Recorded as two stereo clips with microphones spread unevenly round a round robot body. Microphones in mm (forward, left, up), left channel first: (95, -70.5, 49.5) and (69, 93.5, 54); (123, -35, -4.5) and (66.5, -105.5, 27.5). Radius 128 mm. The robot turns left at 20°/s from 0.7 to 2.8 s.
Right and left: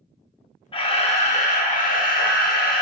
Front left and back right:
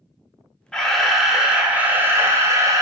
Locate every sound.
0.7 s a camera shutter: 20° right, 0.6 m; by 2.8 s 65° right, 0.6 m